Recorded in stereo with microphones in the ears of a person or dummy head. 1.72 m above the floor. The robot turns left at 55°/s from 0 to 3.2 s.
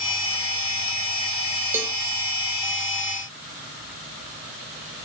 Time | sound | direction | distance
1.7 | a cowbell | 10° right (ahead or behind) | 1.1 m